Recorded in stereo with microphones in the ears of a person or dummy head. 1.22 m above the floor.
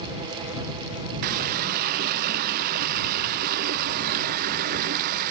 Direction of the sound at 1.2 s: 50° right (ahead or behind).